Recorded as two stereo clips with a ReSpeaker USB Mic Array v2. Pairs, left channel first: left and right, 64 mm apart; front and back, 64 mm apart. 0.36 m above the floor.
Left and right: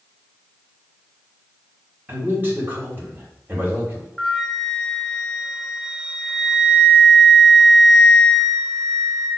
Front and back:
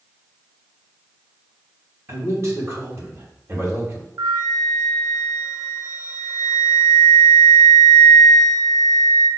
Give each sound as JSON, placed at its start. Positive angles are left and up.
{"t": 2.1, "sound": "a man speaking", "azimuth_deg": -145, "distance_m": 2.5}
{"t": 4.2, "sound": "a flute", "azimuth_deg": 180, "distance_m": 0.9}